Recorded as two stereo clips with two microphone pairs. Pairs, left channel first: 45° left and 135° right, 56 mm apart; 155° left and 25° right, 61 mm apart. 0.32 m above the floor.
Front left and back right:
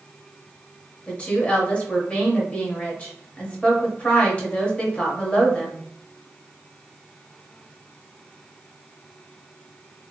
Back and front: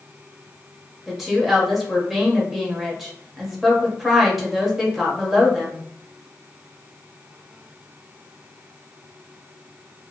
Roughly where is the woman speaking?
Ahead left.